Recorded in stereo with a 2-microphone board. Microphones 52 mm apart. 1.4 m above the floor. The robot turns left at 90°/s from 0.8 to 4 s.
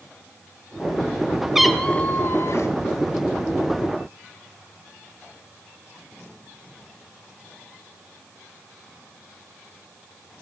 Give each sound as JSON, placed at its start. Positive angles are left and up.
{"t": 1.6, "sound": "a cat meowing", "azimuth_deg": -170, "distance_m": 1.9}